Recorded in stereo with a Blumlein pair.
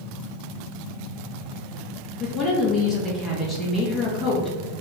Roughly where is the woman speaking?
Ahead.